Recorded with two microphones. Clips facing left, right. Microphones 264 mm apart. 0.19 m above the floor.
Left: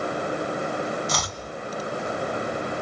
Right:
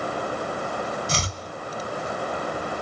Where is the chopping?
30° right (ahead or behind), 1.6 m.